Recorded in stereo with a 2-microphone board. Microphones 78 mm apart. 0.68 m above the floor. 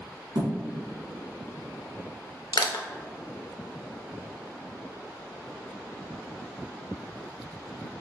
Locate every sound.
0.3 s a thud: 65° right (ahead or behind), 1.3 m
2.5 s crushing: 65° left (ahead or behind), 0.5 m